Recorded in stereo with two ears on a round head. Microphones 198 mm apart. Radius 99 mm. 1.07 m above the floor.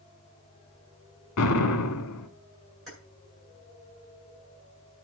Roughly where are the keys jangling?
Centre.